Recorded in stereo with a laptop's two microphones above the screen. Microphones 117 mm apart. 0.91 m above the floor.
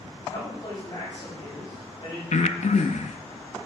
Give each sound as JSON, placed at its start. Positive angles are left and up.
{"t": 0.2, "sound": "a man speaking", "side_deg": 50, "distance_m": 5.0}
{"t": 2.3, "sound": "breathing", "side_deg": 75, "distance_m": 0.5}